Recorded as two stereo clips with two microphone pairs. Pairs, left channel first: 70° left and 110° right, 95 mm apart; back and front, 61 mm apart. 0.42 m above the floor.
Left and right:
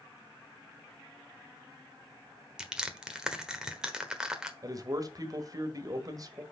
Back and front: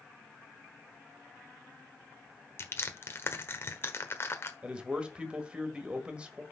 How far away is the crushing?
About 1.2 m.